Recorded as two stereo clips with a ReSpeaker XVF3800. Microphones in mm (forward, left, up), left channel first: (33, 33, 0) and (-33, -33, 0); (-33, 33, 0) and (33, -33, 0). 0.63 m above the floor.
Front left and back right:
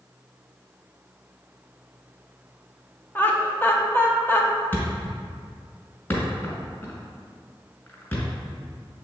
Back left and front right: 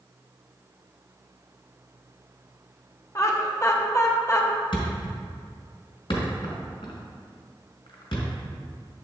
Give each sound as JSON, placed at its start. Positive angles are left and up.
{"t": 3.1, "sound": "laughter", "azimuth_deg": 100, "distance_m": 0.8}
{"t": 4.7, "sound": "a thud", "azimuth_deg": 110, "distance_m": 1.9}